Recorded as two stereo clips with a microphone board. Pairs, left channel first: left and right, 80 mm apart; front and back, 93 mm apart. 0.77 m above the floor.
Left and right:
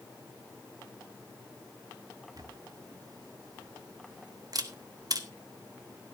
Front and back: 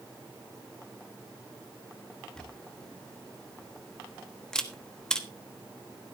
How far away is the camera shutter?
About 1.2 m.